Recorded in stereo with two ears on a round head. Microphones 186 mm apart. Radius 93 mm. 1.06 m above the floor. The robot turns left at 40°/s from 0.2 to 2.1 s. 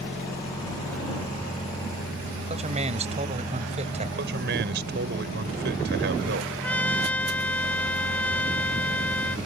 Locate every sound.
2.5 s a man speaking: 35° right (ahead or behind)
4.2 s a man speaking: 55° right (ahead or behind)
6.6 s a trumpet: 10° left (ahead or behind)